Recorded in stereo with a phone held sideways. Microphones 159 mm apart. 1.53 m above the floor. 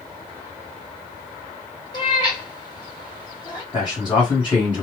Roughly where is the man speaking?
Left.